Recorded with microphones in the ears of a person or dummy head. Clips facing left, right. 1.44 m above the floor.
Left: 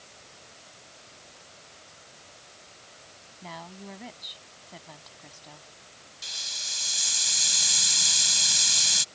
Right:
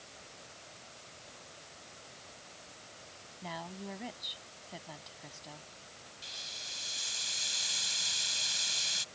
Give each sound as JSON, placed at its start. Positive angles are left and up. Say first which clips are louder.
{"t": 3.4, "sound": "a woman speaking", "louder": "even", "side_deg": -5}
{"t": 6.2, "sound": "a hiss", "louder": "left 2 dB", "side_deg": 60}